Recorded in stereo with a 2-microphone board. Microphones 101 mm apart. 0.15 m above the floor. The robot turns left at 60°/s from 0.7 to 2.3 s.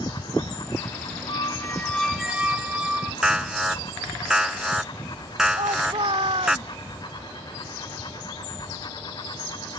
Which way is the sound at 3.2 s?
5° right (ahead or behind).